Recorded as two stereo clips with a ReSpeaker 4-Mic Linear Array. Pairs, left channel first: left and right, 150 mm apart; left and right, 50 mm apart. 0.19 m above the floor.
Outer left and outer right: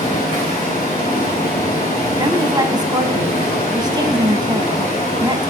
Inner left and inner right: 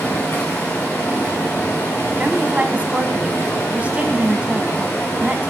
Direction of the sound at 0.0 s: 50° left (ahead or behind).